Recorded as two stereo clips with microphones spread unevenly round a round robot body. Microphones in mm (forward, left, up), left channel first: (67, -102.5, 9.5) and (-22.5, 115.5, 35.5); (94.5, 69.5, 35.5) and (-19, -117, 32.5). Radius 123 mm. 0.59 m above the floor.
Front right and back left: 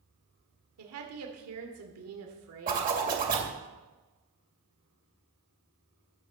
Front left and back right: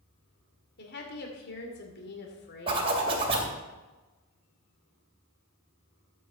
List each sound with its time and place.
0.8 s a woman speaking: 100° left, 2 m
2.7 s a zipper: 170° left, 2.5 m